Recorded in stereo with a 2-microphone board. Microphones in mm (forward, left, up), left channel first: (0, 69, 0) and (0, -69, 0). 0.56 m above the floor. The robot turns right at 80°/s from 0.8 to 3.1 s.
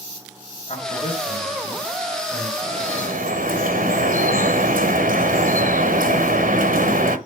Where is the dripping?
135° right, 1.2 m; by 7.2 s 100° right, 1.2 m.